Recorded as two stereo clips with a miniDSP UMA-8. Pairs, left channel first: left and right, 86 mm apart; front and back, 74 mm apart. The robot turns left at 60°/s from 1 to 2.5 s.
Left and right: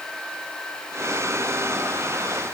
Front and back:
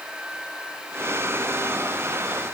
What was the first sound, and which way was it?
Only background noise.